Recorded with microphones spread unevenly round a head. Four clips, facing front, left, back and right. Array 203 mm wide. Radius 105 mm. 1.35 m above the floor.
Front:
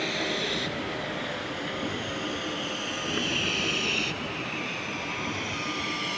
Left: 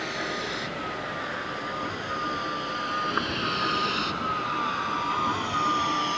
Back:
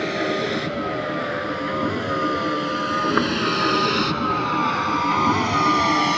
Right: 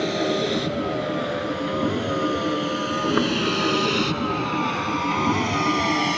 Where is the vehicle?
115° right; by 6.2 s 135° right.